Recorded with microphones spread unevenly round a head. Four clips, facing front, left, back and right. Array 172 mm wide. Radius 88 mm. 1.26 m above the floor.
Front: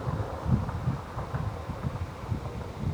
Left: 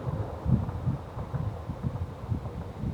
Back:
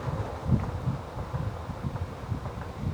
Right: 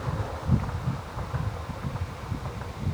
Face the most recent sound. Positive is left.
No sound to turn to.